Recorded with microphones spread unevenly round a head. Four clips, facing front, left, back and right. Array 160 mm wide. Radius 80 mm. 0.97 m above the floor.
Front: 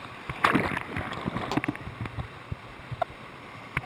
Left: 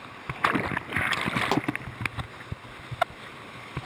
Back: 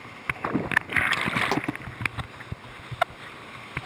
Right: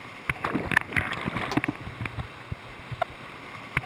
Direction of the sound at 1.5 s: 130° left.